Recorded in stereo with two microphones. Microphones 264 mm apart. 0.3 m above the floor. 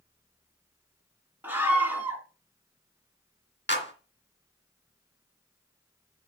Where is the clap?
45° left (ahead or behind), 2.5 m.